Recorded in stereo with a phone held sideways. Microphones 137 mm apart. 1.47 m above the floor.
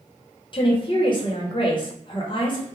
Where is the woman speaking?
35° left (ahead or behind), 0.9 m.